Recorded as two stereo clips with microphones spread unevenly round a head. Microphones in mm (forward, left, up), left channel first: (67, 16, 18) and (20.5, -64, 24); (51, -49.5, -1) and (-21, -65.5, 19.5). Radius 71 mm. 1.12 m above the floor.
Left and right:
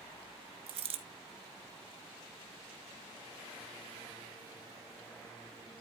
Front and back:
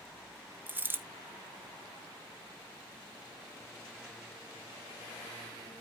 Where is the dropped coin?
110° right, 1.7 m.